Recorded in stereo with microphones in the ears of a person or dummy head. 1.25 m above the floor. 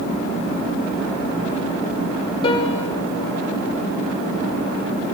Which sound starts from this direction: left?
A piano, at 2.4 s.